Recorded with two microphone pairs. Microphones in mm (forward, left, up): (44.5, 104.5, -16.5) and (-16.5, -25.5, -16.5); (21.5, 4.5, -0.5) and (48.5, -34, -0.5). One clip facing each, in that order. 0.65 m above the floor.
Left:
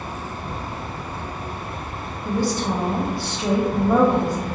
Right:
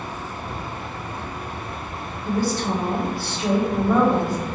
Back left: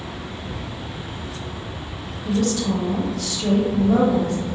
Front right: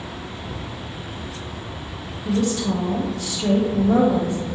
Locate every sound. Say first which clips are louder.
0.0 s an insect: left 1 dB, back left 1 dB; 45° left, 2.0 m
2.2 s a woman speaking: even, even; straight ahead, 1.1 m